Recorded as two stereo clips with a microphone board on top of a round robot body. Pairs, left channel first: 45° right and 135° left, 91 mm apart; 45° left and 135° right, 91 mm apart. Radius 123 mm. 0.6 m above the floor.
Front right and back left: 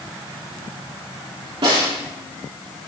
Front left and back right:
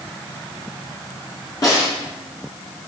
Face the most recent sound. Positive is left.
turn(degrees=95)